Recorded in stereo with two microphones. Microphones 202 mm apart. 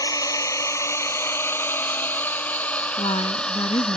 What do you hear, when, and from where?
0.0 s a drone: 15° left (ahead or behind); by 4.0 s 5° left (ahead or behind)
3.0 s a woman speaking: 25° left (ahead or behind)